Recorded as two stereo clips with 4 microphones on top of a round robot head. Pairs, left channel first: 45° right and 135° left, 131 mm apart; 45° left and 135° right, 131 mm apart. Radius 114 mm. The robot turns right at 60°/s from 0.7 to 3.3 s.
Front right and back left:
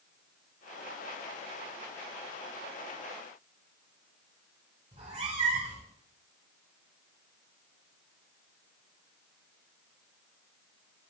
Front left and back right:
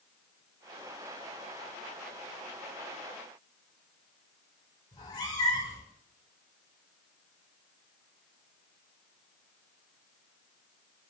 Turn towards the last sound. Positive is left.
turn(degrees=100)